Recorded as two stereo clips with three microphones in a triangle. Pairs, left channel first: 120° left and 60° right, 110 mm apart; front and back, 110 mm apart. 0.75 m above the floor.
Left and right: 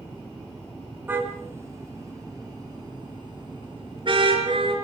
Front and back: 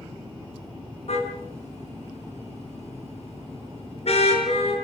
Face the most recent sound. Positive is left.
turn(degrees=-25)